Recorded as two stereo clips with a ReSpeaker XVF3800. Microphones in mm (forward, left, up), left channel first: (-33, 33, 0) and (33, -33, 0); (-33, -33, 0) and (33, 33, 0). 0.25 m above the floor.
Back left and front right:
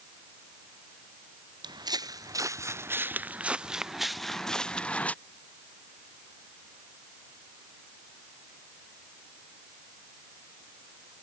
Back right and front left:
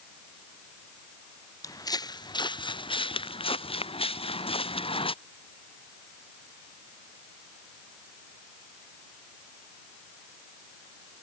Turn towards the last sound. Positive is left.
turn(degrees=-150)